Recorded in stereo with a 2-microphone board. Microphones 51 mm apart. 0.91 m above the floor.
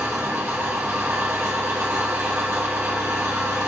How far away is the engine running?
About 2 m.